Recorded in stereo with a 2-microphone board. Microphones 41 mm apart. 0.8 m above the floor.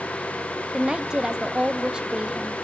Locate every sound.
0.7 s a woman speaking: 20° right (ahead or behind), 1.0 m